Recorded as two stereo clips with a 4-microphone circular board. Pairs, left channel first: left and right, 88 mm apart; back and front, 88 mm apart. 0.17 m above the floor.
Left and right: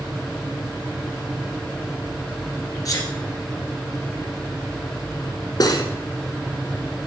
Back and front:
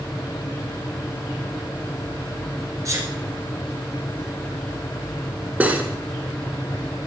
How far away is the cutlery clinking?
About 1.3 m.